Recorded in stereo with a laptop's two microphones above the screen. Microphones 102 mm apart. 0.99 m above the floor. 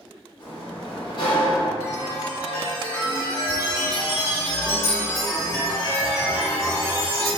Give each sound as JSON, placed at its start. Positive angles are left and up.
{"t": 0.4, "sound": "a sliding door", "side_deg": 55, "distance_m": 0.8}
{"t": 1.8, "sound": "a chime", "side_deg": 30, "distance_m": 1.2}